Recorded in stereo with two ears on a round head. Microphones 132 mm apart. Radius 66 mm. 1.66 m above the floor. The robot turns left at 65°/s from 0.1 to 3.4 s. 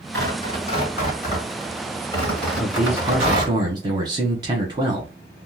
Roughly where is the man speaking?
Ahead.